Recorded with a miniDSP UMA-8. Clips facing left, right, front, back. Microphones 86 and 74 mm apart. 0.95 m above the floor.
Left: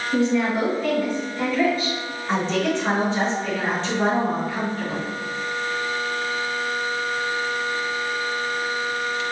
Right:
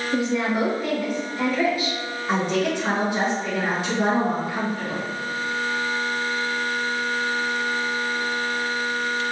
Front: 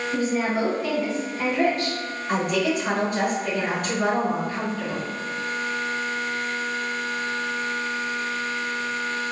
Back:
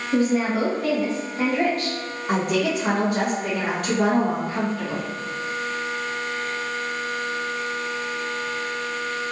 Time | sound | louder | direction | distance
0.1 | a woman speaking | left 2 dB, back 4 dB | 165° right | 1.3 m
2.3 | a woman speaking | even, back 1 dB | 165° right | 1.4 m